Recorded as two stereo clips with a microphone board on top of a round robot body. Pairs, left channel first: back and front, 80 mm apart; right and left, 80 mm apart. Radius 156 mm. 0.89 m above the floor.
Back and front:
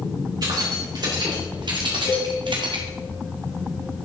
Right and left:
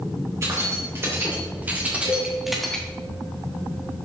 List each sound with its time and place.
0.4 s keys jangling: 35° left, 3.5 m; by 2.9 s 10° right, 1.7 m
2.0 s a cowbell: 130° left, 4.5 m